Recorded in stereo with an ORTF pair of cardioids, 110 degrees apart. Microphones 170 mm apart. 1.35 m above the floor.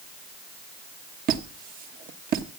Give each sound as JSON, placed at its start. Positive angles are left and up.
{"t": 1.3, "sound": "a squeak", "azimuth_deg": -60, "distance_m": 1.3}